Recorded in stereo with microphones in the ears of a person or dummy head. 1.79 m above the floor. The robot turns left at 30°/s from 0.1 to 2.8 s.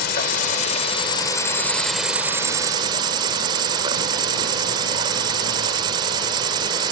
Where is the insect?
55° left; by 6.9 s 25° right.